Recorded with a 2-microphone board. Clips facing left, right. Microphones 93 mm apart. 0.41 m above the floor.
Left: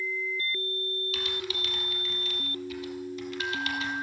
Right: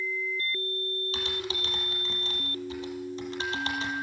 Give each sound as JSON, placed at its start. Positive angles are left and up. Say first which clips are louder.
{"t": 1.1, "sound": "typing on a keyboard", "louder": "right 1 dB", "side_deg": -30, "distance_m": 4.0}